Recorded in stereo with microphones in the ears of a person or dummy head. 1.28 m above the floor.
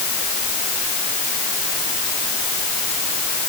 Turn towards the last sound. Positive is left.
No sound to turn to.